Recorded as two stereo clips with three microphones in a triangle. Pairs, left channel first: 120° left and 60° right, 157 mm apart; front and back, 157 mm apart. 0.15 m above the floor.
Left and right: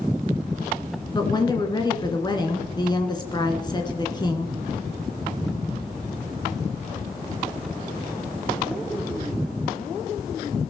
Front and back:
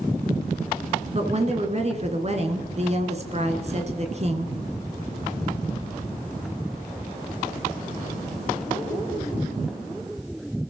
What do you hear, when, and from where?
1.1 s a woman speaking: 170° left, 2 m